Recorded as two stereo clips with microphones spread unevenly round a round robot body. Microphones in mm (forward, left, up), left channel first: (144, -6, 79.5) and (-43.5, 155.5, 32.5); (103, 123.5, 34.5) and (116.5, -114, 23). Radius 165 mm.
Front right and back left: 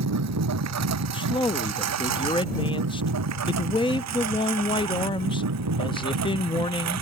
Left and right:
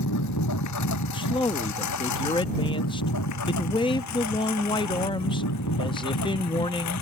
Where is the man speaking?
35° left.